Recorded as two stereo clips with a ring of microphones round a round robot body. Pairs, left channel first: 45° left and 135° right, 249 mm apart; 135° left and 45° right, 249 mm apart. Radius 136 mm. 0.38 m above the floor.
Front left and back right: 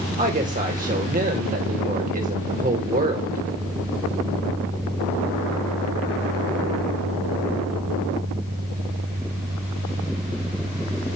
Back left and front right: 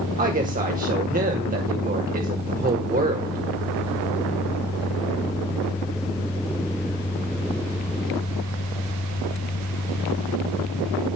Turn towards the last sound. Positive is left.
turn(degrees=-90)